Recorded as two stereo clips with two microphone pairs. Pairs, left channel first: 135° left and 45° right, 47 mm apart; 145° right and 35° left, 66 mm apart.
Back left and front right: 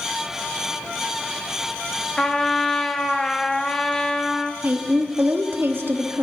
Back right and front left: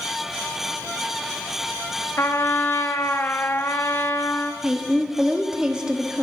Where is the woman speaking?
40° right, 1.3 m.